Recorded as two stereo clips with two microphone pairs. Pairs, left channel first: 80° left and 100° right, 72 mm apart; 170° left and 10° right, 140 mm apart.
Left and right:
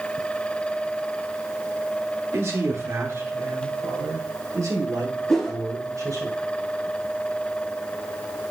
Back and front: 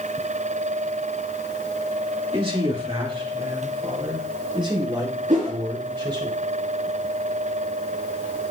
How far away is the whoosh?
About 3 m.